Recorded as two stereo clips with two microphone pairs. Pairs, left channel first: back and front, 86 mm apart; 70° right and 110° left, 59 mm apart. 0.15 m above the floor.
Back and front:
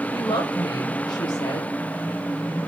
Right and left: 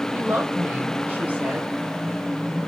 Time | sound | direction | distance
0.1 | a woman speaking | 170° left | 5 m